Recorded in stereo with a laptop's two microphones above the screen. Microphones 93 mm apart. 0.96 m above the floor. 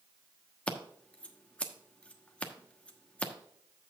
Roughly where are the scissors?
Centre.